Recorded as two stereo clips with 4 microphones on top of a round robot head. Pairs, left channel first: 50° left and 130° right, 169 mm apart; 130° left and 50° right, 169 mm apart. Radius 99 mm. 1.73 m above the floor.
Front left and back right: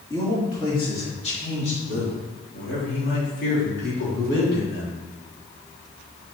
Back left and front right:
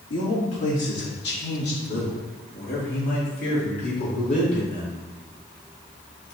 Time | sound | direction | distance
0.1 | a man speaking | 115° left | 3 m